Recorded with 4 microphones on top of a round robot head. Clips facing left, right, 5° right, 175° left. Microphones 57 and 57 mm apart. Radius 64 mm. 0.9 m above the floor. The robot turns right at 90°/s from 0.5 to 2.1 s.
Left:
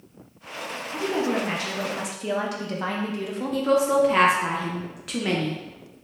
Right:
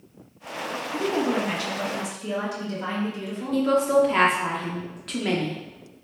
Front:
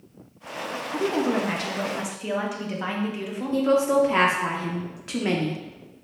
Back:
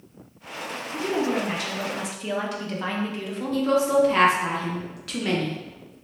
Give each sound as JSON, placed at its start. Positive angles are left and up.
{"t": 0.9, "sound": "a woman speaking", "azimuth_deg": -30, "distance_m": 0.8}
{"t": 3.5, "sound": "a woman speaking", "azimuth_deg": 15, "distance_m": 0.6}